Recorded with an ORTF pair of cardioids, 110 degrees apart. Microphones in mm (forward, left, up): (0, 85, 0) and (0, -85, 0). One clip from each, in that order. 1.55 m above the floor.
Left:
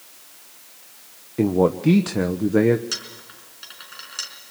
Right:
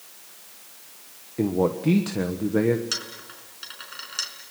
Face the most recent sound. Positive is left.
turn(degrees=-10)